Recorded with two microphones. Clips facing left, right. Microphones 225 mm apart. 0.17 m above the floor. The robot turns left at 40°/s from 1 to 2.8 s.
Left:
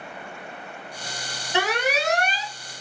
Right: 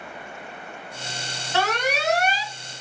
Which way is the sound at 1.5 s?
20° left.